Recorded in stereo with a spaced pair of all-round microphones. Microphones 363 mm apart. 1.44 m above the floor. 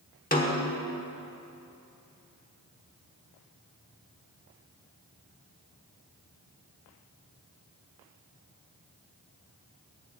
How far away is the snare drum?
About 1.1 m.